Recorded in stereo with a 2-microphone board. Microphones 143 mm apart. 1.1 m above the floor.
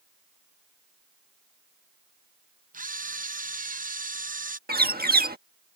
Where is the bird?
90° right.